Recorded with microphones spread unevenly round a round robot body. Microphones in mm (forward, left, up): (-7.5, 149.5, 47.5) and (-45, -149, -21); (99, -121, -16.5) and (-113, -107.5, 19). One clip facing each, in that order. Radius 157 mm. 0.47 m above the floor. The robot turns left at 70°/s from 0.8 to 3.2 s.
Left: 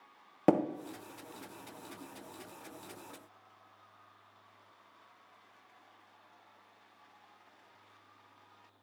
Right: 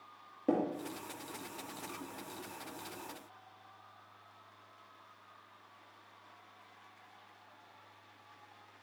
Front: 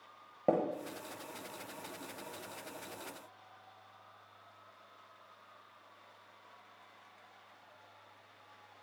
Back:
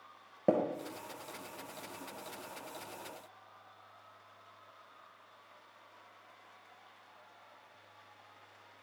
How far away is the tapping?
About 0.6 m.